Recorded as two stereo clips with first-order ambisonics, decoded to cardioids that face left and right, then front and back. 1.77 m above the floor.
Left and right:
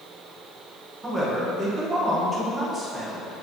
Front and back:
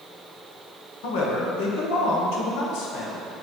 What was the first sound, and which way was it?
A man speaking, 10° right.